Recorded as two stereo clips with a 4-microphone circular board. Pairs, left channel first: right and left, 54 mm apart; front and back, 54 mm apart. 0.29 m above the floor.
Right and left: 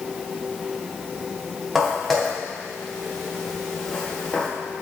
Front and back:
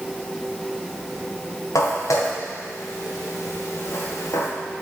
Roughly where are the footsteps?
Ahead.